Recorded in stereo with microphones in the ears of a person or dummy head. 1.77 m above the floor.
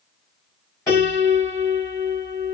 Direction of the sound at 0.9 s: 15° left (ahead or behind).